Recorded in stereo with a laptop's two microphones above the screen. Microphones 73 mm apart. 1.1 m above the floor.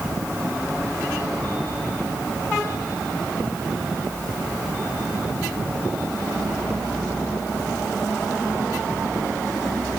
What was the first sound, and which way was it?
Only background noise.